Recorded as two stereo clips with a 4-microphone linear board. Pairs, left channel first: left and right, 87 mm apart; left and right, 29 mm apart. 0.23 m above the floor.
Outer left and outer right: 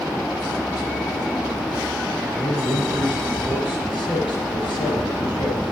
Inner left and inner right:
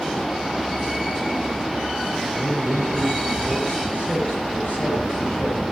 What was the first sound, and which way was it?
A man speaking, 65° left (ahead or behind).